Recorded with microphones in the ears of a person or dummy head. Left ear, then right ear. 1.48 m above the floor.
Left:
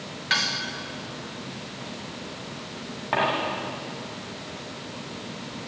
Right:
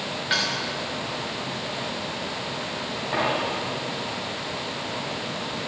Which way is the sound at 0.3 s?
15° left (ahead or behind).